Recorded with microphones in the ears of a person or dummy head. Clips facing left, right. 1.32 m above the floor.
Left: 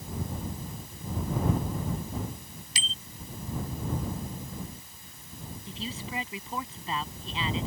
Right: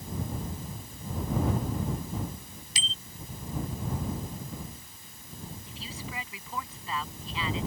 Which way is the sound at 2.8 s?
50° left (ahead or behind).